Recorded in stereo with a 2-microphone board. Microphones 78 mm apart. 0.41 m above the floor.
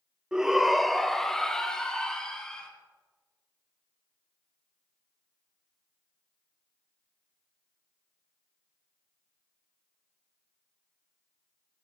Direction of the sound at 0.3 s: 10° right (ahead or behind).